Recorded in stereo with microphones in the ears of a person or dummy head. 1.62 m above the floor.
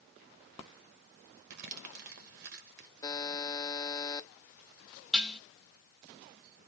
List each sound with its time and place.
1.5 s crumpling: 60° right (ahead or behind), 1.1 m
3.0 s a buzzer: 10° left (ahead or behind), 0.5 m
5.1 s dishes clattering: 5° left (ahead or behind), 1.2 m